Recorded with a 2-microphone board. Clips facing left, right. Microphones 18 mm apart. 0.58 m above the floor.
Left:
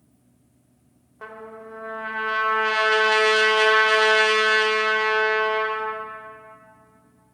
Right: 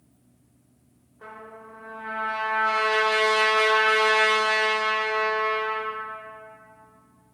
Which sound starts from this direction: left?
A trumpet, at 1.2 s.